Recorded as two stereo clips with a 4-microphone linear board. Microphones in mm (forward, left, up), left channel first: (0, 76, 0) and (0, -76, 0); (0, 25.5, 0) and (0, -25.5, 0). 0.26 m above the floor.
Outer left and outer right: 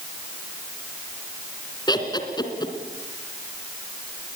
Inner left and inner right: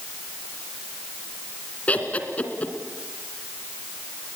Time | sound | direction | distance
1.9 | laughter | 30° left (ahead or behind) | 3 m